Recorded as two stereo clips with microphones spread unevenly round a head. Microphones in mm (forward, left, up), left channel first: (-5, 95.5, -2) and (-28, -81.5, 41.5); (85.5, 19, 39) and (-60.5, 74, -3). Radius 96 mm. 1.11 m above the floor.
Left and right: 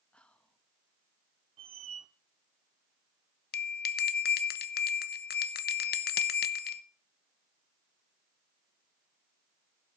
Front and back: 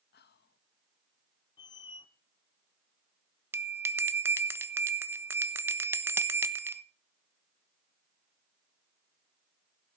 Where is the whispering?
Straight ahead, 1.2 m.